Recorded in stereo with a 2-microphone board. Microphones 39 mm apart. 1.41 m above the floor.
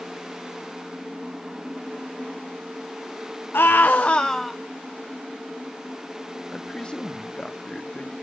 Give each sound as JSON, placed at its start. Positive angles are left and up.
{"t": 3.5, "sound": "a scream", "side_deg": 70, "distance_m": 1.3}
{"t": 6.5, "sound": "a man speaking", "side_deg": 25, "distance_m": 2.0}